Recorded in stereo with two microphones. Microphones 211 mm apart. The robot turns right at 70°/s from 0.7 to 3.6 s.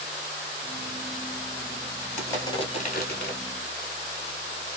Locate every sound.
2.2 s crushing: 5° left, 1.0 m; by 3.4 s 90° left, 1.0 m